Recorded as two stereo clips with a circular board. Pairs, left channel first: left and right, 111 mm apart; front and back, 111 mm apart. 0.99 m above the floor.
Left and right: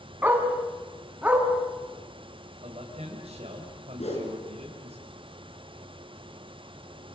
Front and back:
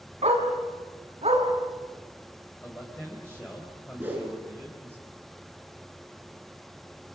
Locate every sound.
0.2 s a dog barking: 165° right, 4 m; by 1.4 s 170° right, 4.5 m
2.6 s a man speaking: 75° right, 4 m
4.0 s a whoosh: 105° left, 6 m